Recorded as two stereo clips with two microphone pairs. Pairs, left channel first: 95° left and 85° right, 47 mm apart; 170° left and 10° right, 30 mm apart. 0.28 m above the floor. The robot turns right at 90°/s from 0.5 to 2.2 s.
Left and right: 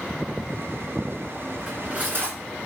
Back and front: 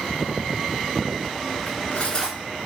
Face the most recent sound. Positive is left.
turn(degrees=-125)